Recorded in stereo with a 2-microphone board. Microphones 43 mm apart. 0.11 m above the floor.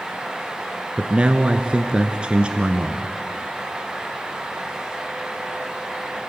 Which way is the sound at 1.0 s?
25° right (ahead or behind).